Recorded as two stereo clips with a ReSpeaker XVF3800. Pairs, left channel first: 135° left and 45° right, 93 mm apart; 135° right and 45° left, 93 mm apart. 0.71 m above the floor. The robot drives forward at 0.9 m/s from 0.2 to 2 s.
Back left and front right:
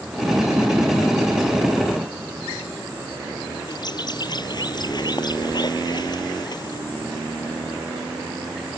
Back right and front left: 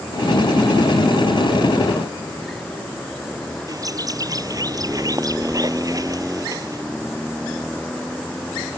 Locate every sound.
3.7 s a bird: 95° left